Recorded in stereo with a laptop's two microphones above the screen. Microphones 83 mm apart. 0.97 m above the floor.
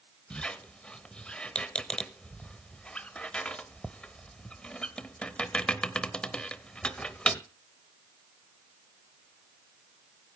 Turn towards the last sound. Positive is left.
turn(degrees=15)  # may be behind; listen again after turning